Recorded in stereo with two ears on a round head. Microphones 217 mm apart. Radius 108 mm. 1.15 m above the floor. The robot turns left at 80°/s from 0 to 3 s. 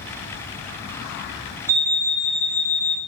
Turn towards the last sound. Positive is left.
turn(degrees=85)